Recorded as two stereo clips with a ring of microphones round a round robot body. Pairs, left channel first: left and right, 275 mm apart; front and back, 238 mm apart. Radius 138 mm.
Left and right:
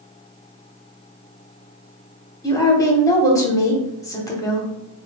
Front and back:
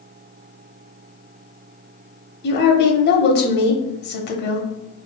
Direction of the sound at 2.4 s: 15° left.